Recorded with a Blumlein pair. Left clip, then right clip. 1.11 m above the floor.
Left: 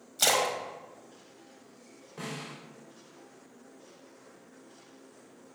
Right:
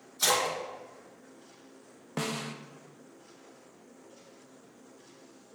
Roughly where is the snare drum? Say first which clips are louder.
Right 5 dB; ahead right.